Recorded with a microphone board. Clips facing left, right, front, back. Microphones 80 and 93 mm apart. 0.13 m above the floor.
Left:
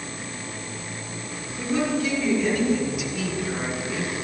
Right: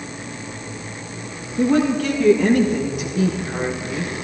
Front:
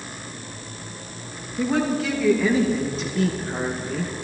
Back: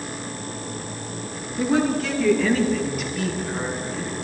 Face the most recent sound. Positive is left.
turn(degrees=-10)